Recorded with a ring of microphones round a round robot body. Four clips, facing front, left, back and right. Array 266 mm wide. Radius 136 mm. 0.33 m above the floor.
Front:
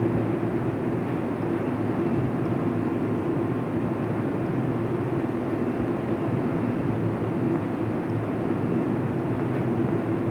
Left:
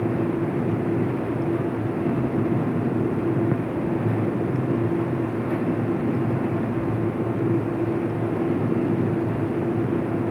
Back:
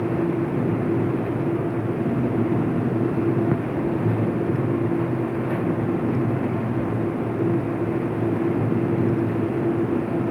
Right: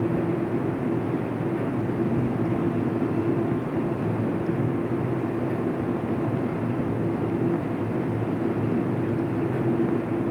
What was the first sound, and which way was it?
Only background noise.